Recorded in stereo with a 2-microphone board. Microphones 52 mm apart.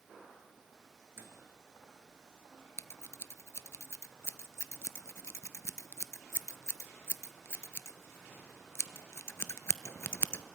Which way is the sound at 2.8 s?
55° left (ahead or behind).